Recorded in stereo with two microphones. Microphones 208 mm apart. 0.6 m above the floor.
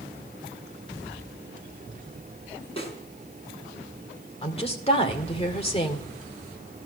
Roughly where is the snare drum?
Left.